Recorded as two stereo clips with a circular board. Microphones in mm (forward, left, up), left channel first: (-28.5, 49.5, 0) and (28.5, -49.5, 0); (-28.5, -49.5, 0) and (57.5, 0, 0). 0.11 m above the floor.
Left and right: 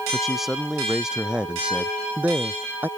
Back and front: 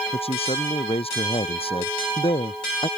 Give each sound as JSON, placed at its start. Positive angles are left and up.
{"t": 0.1, "sound": "a man speaking", "azimuth_deg": -150}